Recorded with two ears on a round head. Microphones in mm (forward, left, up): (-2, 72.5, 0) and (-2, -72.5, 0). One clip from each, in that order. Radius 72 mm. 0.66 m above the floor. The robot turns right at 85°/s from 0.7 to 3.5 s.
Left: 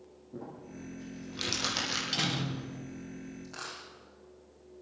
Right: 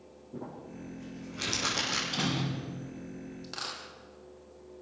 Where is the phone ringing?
I don't hear a phone ringing.